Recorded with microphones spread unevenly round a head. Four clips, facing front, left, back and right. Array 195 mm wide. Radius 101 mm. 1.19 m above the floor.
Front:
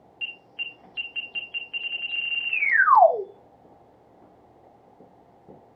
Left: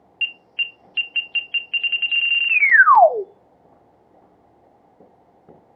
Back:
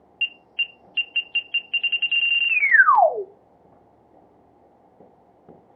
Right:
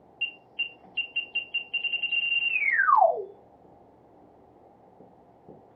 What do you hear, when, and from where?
0.2 s an alarm: 90° left, 0.6 m